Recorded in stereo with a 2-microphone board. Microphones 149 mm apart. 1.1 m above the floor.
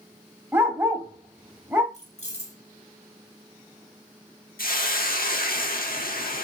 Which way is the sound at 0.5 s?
15° right (ahead or behind).